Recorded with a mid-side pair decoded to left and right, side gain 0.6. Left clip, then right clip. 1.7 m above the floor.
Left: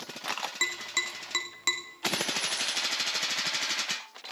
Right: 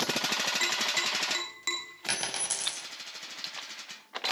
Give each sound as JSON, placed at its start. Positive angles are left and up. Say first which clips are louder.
{"t": 0.6, "sound": "tapping", "louder": "right 2 dB", "azimuth_deg": 25, "distance_m": 3.0}
{"t": 2.1, "sound": "a dropped coin", "louder": "left 2 dB", "azimuth_deg": -65, "distance_m": 4.0}